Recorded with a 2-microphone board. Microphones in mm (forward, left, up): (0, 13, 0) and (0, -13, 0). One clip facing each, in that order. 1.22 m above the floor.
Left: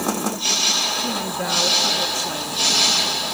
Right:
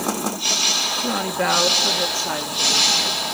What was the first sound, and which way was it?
A woman speaking, 40° right (ahead or behind).